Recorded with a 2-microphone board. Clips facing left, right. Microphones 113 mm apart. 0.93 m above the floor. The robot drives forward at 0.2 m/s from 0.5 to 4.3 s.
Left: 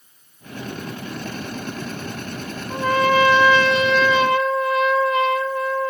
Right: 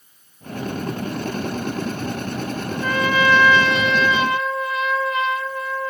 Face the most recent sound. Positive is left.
turn(degrees=35)  # may be behind; listen again after turning